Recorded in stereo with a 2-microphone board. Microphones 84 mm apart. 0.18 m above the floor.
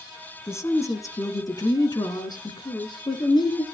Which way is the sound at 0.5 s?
35° left (ahead or behind).